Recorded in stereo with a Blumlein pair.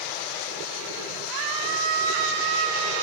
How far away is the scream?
About 3 m.